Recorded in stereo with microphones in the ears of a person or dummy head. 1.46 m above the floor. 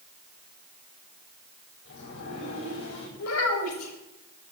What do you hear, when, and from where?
1.9 s a sliding door: 60° left (ahead or behind), 8.5 m
3.2 s a child speaking: 80° left, 6 m